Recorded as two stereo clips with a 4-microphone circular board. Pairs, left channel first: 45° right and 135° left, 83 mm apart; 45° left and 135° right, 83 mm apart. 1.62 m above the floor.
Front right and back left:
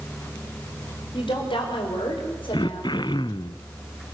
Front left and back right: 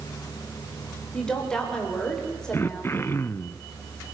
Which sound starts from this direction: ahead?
Throat clearing, at 2.5 s.